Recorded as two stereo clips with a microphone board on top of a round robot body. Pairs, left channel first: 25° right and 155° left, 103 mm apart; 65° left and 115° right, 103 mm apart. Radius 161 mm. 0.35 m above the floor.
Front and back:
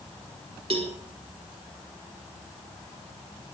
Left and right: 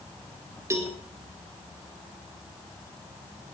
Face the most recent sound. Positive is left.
turn(degrees=-175)